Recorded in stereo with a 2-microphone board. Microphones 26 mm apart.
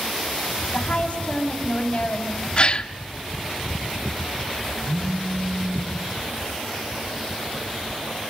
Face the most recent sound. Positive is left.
turn(degrees=-40)  # may be behind; listen again after turning